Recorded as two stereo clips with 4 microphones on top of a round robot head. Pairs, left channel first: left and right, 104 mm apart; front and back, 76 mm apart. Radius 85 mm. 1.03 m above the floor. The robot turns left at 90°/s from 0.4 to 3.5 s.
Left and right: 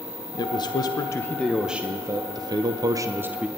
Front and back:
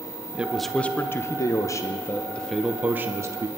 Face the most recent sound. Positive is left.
turn(degrees=-175)